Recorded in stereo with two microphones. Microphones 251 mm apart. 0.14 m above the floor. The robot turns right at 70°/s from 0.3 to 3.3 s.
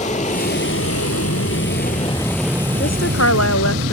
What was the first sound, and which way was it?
An aircraft, 30° left.